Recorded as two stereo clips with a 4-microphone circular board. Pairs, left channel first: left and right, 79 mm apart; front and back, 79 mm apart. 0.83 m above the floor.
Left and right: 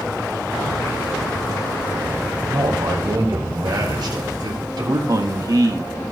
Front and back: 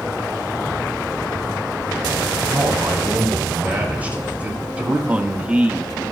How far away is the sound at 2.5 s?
About 4.5 m.